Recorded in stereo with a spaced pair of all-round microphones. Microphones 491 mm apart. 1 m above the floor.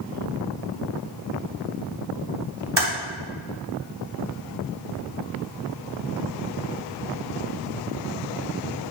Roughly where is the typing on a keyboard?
Right.